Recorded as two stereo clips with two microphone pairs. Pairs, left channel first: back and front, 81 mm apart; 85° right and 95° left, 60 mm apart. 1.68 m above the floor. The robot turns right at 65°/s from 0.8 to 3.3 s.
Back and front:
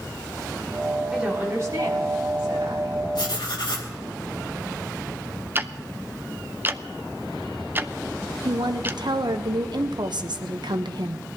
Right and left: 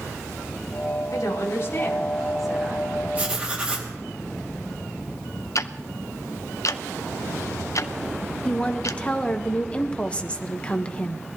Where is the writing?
155° left, 2.5 m; by 3.9 s 165° left, 2.5 m.